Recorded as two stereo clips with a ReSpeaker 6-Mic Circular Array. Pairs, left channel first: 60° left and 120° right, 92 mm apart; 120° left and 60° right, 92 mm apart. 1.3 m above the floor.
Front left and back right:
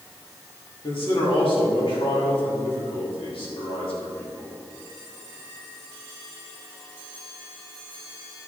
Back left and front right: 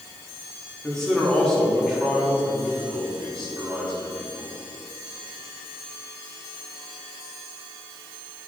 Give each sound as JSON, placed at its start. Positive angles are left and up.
{"t": 0.8, "sound": "a man speaking", "azimuth_deg": 35, "distance_m": 3.0}